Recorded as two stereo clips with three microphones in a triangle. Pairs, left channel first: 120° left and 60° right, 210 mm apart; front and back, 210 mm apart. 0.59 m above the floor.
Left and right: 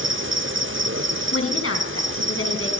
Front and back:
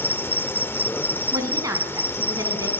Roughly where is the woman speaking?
Left.